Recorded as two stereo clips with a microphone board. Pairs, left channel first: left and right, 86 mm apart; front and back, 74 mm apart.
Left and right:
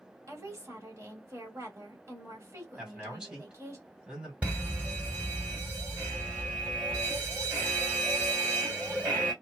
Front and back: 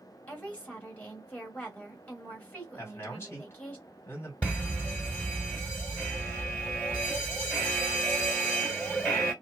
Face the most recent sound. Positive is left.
turn(degrees=-45)